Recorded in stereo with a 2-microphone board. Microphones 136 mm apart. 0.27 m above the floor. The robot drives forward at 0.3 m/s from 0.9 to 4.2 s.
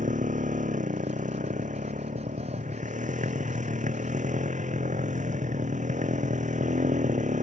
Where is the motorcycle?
85° right; by 7.4 s 75° right (ahead or behind).